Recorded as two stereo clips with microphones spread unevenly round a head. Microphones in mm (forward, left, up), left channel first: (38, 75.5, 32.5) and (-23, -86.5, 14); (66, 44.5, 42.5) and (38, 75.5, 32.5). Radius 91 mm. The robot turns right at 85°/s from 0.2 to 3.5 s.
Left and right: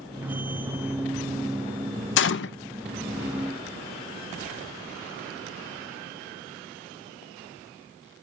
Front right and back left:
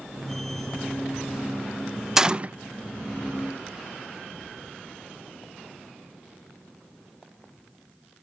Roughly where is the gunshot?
Ahead left.